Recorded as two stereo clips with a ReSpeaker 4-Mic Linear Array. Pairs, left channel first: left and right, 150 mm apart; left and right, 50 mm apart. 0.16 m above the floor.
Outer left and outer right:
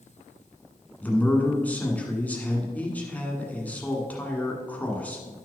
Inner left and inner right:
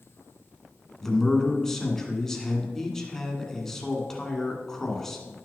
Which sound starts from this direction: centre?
A man speaking, at 1.0 s.